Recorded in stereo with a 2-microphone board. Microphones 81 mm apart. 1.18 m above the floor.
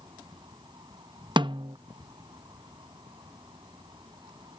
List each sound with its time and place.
0.0 s an insect: 65° right (ahead or behind)
1.4 s a snare drum: 65° right (ahead or behind)